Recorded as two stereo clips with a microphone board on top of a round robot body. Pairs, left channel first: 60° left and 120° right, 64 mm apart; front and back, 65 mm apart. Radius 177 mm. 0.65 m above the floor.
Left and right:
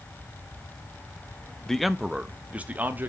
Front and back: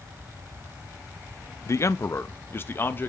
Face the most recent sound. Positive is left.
turn(degrees=-60)